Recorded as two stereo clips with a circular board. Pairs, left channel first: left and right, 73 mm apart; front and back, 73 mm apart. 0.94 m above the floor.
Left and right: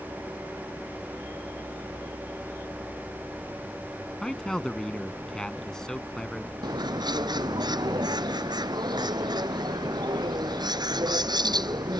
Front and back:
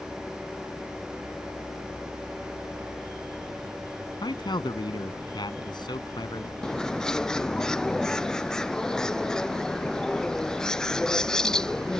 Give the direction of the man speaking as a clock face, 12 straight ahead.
12 o'clock.